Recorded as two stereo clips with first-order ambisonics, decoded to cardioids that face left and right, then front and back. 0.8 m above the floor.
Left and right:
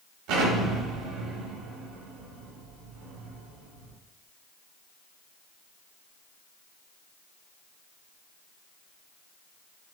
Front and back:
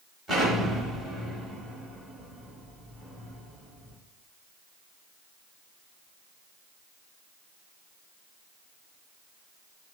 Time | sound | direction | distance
0.3 | an explosion | 95° right | 1.4 m